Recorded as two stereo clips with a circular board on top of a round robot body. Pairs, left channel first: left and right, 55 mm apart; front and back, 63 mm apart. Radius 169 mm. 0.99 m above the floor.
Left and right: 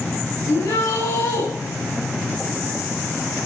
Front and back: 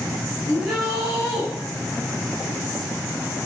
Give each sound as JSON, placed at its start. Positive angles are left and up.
{"t": 0.5, "sound": "a shout", "azimuth_deg": 95, "distance_m": 9.0}